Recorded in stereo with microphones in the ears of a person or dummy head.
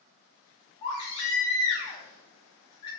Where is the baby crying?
20° left (ahead or behind), 1.0 m.